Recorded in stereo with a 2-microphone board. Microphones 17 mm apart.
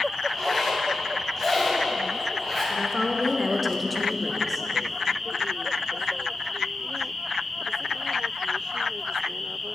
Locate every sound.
0.3 s a zipper: 20° left (ahead or behind), 2.5 m
2.8 s a woman speaking: centre (ahead or behind), 1.0 m